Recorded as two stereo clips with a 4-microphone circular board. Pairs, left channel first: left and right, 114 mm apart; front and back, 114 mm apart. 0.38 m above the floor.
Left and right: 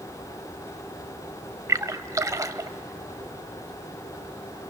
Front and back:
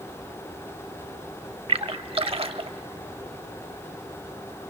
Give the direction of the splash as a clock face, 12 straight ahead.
5 o'clock.